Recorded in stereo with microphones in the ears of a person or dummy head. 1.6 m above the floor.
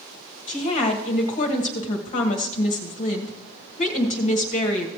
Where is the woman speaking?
40° left (ahead or behind), 1.4 m.